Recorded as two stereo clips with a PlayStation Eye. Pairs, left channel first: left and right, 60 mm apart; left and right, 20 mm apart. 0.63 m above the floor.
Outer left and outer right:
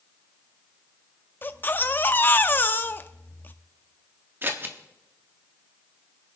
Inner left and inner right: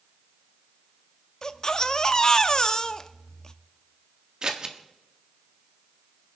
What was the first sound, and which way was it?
A baby crying, 35° left (ahead or behind).